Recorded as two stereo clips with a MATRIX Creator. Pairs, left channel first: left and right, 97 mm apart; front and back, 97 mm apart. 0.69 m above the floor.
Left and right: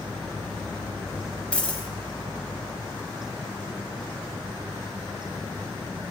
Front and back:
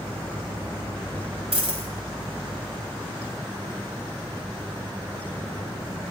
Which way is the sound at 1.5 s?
170° left.